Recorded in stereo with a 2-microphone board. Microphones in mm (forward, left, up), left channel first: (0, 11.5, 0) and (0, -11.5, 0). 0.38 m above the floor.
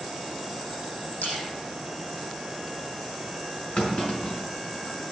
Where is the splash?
85° left, 6 m.